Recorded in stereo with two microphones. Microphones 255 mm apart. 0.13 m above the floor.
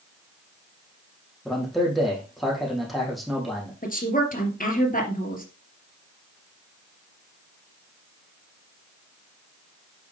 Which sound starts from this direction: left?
A woman speaking, at 3.8 s.